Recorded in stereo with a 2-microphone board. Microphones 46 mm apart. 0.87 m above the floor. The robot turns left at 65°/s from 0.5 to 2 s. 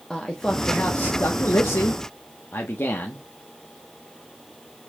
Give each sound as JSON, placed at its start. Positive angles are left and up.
{"t": 0.1, "sound": "a man speaking", "azimuth_deg": 165, "distance_m": 1.0}